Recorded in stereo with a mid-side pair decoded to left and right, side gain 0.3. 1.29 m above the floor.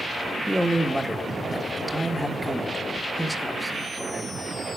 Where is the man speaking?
5° right, 1.8 m.